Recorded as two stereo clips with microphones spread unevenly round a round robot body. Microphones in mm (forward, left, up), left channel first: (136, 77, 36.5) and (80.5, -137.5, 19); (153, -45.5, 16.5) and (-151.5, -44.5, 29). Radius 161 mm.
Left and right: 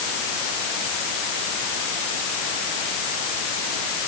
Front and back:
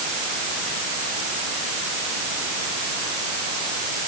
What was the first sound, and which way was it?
Only background noise.